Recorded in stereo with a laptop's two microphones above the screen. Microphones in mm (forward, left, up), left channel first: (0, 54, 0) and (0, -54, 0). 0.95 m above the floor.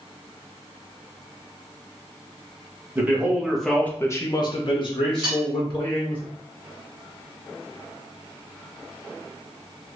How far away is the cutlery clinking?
About 1.2 m.